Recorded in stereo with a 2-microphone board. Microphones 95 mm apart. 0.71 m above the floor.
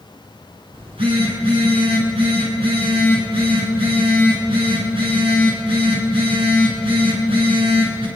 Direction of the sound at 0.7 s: 85° right.